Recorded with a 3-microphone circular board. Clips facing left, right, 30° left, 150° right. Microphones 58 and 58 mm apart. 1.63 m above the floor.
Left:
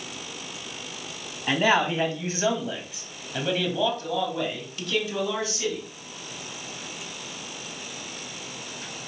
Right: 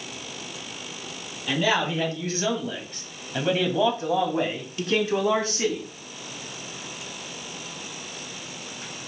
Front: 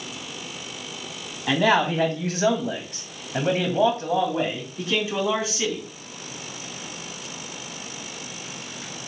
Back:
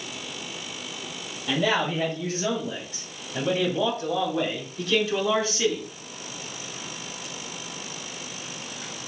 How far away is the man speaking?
About 2.5 m.